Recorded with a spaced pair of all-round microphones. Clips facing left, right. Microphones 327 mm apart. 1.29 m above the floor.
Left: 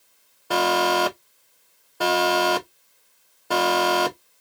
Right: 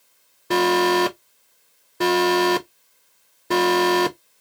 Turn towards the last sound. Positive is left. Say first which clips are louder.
# right 5 dB
turn(degrees=-30)  # may be behind; listen again after turning